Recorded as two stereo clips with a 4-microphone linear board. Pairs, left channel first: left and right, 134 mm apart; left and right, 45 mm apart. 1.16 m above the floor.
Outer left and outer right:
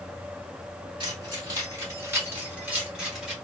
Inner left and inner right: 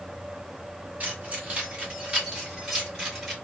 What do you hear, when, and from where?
1.0 s keys jangling: 40° right (ahead or behind), 2 m; by 3.3 s 5° right (ahead or behind), 2 m